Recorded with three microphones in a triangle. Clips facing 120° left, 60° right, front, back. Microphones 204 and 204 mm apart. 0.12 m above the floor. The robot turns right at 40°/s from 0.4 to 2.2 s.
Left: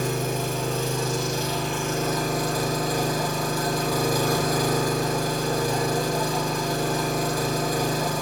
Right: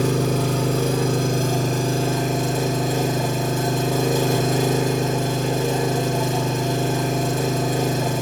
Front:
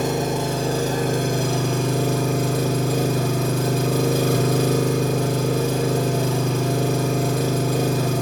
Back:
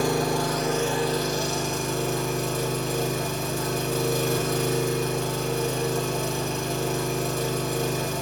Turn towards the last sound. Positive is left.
turn(degrees=5)